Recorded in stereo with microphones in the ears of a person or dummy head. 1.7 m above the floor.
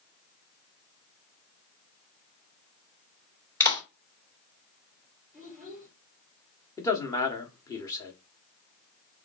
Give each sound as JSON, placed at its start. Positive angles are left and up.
{"t": 3.6, "sound": "a clap", "side_deg": 15, "distance_m": 1.9}
{"t": 5.3, "sound": "a child speaking", "side_deg": 5, "distance_m": 3.5}
{"t": 6.8, "sound": "a man speaking", "side_deg": 20, "distance_m": 1.0}